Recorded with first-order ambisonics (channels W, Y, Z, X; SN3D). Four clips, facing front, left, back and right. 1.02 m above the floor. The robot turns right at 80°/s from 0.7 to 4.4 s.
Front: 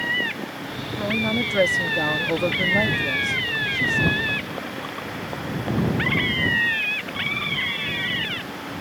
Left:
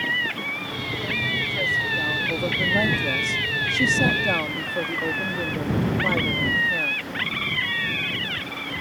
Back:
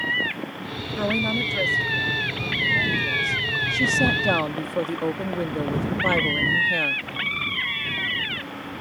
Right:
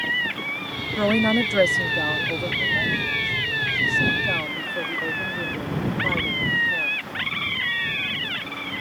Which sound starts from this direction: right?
A woman speaking, at 1.0 s.